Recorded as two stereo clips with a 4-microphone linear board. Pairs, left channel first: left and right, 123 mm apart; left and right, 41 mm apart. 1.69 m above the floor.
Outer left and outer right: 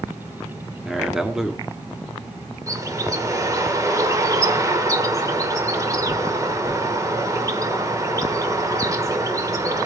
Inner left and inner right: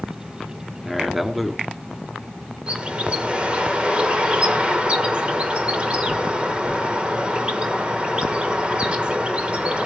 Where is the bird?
25° right (ahead or behind), 1.4 m.